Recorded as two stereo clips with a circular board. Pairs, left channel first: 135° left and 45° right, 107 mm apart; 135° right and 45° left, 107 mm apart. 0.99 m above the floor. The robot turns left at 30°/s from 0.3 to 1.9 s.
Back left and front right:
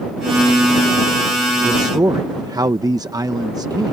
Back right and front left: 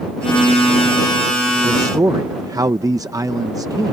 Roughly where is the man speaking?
Ahead.